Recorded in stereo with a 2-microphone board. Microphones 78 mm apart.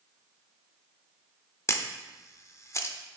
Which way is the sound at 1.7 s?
40° left (ahead or behind).